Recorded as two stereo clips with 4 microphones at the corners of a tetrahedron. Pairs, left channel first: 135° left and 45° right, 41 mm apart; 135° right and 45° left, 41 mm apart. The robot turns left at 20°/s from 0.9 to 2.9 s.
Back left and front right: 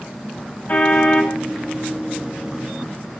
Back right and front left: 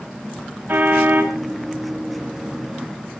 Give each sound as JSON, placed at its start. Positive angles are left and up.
{"t": 0.7, "sound": "a car horn", "azimuth_deg": 85, "distance_m": 4.0}